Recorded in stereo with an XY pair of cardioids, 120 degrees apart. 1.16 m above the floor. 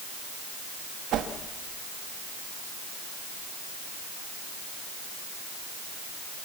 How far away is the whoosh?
About 2.0 m.